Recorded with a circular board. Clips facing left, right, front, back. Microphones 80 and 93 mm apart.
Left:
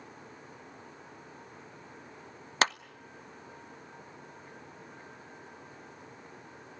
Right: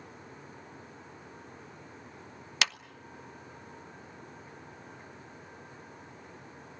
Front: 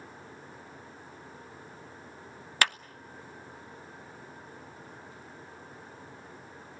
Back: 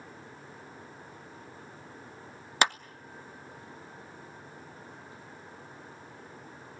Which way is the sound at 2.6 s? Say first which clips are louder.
Left 6 dB, back 3 dB; 120° left.